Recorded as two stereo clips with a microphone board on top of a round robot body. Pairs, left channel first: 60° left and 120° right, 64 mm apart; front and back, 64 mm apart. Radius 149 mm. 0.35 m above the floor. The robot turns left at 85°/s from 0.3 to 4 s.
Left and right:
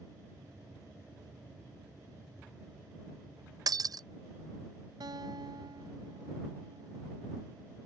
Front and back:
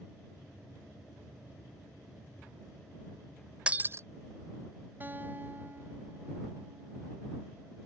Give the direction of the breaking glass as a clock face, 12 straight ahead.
4 o'clock.